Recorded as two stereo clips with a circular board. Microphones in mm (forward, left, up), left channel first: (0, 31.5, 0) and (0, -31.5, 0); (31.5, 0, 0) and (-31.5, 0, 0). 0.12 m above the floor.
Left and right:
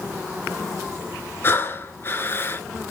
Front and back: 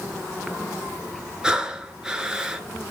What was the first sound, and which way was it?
Breathing, 110° left.